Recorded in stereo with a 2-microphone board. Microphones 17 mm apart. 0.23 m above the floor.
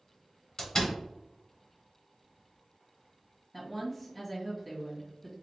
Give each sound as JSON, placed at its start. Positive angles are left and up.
{"t": 0.6, "sound": "a door slam", "side_deg": 30, "distance_m": 1.5}
{"t": 3.5, "sound": "a woman speaking", "side_deg": 0, "distance_m": 1.5}